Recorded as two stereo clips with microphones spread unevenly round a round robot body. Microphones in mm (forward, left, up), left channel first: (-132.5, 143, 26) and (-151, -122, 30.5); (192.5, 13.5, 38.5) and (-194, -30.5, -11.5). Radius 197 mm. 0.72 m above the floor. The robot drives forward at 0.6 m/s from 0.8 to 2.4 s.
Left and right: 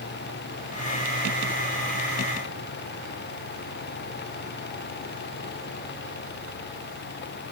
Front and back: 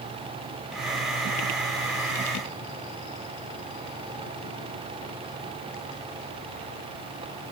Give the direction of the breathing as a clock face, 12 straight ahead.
No breathing in this recording.